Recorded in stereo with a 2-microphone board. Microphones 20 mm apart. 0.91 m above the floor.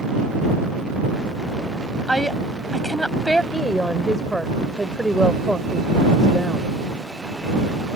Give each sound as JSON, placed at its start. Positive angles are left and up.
{"t": 2.1, "sound": "a woman speaking", "side_deg": 20}
{"t": 3.5, "sound": "a woman speaking", "side_deg": 10}